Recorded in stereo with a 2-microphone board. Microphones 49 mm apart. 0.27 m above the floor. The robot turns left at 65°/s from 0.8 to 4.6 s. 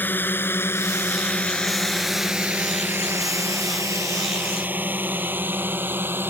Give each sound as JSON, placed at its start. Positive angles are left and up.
{"t": 0.0, "sound": "a drone", "side_deg": 40}